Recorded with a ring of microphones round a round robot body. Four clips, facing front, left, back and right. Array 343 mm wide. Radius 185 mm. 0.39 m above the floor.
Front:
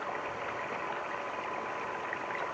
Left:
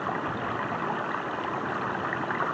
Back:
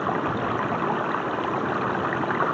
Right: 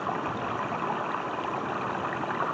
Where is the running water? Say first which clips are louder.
Even, back 12 dB; 175° left.